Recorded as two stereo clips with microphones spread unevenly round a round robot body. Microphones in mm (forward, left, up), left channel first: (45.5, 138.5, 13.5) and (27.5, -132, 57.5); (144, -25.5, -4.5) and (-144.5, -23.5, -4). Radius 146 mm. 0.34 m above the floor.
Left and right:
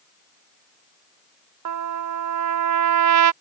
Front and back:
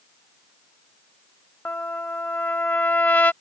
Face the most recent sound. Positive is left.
turn(degrees=-85)